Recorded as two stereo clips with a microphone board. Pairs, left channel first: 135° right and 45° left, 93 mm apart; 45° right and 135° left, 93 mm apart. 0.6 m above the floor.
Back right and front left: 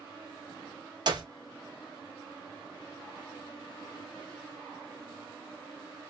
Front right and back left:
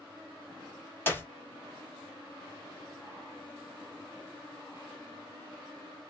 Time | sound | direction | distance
1.1 | a clap | 20° left | 0.9 m